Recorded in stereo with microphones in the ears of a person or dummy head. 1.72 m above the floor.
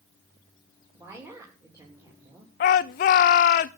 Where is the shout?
40° left (ahead or behind), 0.7 m.